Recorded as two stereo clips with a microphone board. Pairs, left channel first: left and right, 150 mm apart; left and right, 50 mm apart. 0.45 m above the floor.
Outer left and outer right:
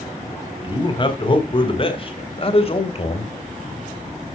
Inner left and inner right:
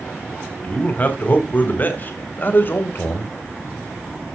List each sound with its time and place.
0.6 s a man speaking: 30° left (ahead or behind), 3.5 m; by 3.3 s 45° left (ahead or behind), 2.5 m